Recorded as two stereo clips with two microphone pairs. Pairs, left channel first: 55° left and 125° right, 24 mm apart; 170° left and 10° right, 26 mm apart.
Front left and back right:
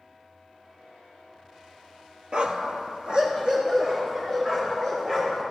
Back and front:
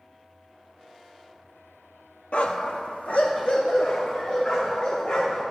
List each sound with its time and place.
2.3 s a dog barking: 165° right, 0.7 m; by 5.4 s 175° right, 4.5 m